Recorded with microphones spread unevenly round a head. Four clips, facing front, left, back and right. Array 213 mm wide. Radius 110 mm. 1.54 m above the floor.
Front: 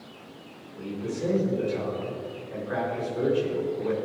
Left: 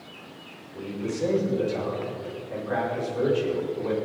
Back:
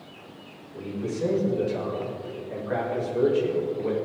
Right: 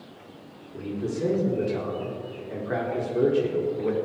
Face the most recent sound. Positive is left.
turn(degrees=-110)